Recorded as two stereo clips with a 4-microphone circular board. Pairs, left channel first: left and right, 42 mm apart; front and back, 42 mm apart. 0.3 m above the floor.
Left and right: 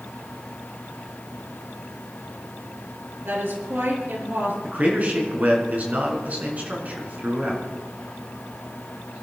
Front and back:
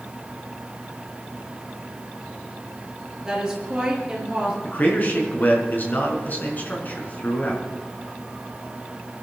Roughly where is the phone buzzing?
I don't hear a phone buzzing.